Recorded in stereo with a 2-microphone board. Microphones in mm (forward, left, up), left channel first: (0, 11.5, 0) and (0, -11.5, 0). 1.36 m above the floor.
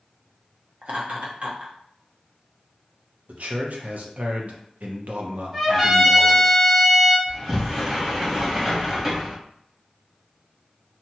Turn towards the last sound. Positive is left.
turn(degrees=-25)  # may be behind; listen again after turning